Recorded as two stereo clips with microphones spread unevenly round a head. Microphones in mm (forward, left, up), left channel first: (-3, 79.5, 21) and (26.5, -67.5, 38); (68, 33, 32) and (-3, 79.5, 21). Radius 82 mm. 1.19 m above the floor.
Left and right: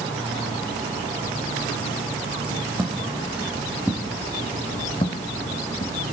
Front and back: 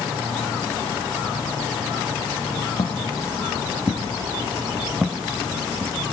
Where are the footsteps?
5° right, 2.0 m; by 6.0 s 75° left, 1.8 m.